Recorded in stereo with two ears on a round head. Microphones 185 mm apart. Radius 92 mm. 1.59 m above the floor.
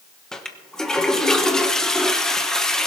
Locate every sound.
0.3 s a toilet flushing: 5° left (ahead or behind), 1.2 m